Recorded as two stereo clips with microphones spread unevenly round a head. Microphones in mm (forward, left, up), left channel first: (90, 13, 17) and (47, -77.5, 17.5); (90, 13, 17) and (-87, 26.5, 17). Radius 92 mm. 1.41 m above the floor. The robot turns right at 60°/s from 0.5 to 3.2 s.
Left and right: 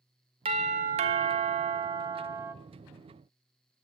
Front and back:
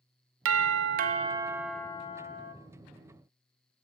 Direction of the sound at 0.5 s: 170° right.